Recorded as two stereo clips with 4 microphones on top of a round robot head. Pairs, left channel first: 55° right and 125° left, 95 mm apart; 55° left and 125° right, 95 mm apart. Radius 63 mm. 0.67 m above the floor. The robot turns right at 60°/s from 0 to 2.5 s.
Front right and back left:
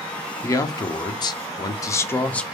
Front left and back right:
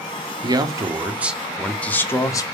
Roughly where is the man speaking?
Right.